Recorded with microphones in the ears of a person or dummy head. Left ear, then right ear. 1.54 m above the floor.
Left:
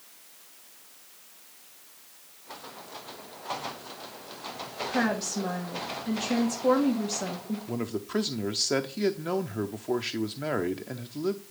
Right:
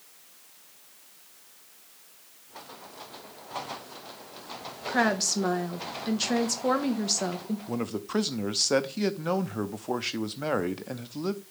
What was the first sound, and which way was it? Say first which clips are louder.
A woman speaking: right 4 dB; 75° right (ahead or behind).